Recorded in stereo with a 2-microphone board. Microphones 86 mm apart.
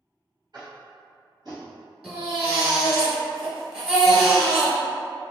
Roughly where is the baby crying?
Centre.